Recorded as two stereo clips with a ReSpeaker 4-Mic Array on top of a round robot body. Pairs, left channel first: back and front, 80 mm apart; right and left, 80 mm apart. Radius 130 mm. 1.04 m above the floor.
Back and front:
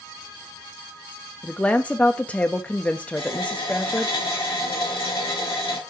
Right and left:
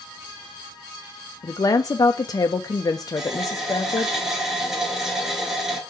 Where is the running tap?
170° left, 3 m.